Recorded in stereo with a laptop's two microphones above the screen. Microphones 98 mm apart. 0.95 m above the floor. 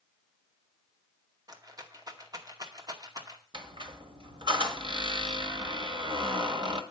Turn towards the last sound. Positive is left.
turn(degrees=-55)  # may be behind; listen again after turning